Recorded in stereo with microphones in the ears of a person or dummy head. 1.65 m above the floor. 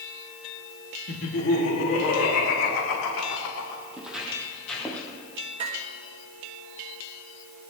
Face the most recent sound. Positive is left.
turn(degrees=-35)  # may be behind; listen again after turning